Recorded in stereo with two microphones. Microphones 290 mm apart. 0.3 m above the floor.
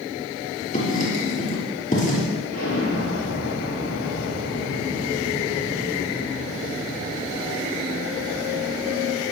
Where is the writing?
30° left (ahead or behind), 6 m.